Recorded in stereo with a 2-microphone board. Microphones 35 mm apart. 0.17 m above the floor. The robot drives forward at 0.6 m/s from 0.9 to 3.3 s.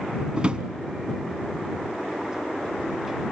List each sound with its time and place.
0.4 s a drawer: 30° right (ahead or behind), 0.6 m